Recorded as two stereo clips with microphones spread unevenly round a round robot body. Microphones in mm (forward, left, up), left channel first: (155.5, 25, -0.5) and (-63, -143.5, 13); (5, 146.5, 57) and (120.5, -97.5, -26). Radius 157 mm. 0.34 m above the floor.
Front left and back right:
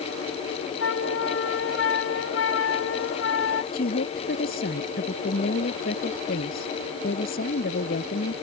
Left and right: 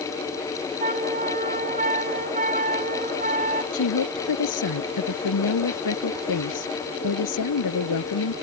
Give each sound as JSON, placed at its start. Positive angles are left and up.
{"t": 0.8, "sound": "a flute", "azimuth_deg": -5}
{"t": 3.7, "sound": "a woman speaking", "azimuth_deg": 100}